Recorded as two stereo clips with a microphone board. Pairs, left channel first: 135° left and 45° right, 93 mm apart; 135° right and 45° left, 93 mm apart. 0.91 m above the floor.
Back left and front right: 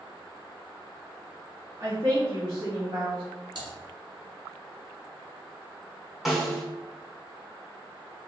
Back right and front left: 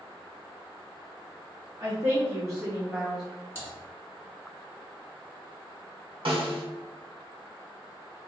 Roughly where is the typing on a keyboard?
Ahead.